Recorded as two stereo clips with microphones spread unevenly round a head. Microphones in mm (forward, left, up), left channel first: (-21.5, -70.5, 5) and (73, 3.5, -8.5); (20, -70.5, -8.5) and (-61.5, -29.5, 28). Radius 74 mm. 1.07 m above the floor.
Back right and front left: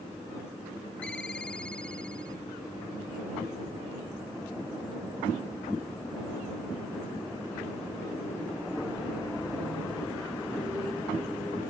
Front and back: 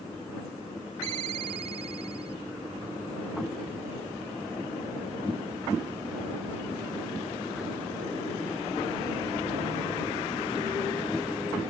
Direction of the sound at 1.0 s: 135° left.